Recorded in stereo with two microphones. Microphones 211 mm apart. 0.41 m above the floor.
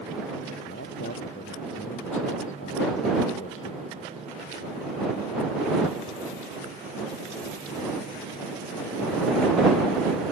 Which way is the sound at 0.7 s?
75° left (ahead or behind).